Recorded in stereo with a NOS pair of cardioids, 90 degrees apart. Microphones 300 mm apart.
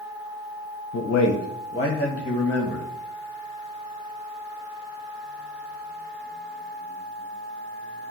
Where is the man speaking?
55° left, 0.7 m; by 2.9 s 5° left, 1.5 m.